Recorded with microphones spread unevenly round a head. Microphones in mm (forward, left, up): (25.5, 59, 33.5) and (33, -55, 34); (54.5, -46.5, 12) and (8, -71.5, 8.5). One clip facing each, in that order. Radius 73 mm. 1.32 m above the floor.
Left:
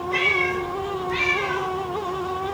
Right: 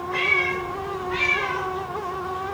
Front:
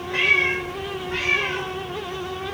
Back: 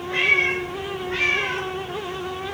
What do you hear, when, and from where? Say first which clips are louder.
0.1 s a cat meowing: left 2 dB, even; 140° left, 3 m; by 1.7 s 155° left, 1.9 m